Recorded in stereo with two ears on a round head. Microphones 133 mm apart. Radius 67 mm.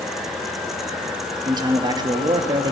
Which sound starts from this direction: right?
A man speaking, at 1.4 s.